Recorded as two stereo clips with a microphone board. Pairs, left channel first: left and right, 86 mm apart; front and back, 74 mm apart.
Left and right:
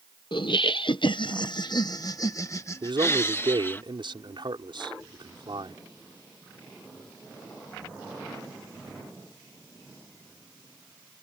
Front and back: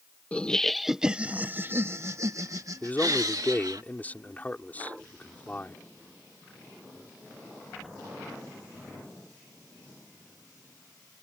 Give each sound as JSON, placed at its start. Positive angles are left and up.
{"t": 0.3, "sound": "laughter", "azimuth_deg": 70}
{"t": 2.8, "sound": "a man speaking", "azimuth_deg": -70}